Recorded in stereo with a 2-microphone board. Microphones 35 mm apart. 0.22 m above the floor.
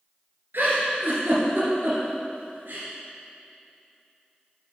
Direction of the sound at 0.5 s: 70° right (ahead or behind).